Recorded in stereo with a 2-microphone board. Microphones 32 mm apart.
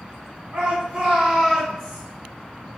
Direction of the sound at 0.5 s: 40° right (ahead or behind).